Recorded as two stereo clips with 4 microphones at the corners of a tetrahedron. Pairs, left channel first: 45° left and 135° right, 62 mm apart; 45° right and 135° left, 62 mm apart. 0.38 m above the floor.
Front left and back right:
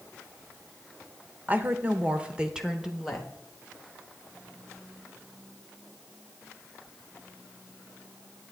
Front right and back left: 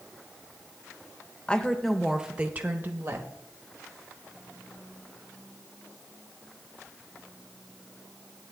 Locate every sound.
1.5 s a woman speaking: 100° right, 0.9 m; by 3.3 s 135° left, 1.1 m